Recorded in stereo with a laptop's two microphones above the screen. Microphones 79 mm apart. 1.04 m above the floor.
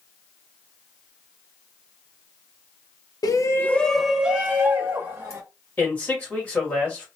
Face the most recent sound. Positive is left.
turn(degrees=20)  # may be behind; listen again after turning